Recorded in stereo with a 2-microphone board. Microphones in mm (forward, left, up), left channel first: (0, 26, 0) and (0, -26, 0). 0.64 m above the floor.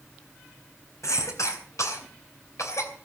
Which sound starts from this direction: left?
A cough, at 1.0 s.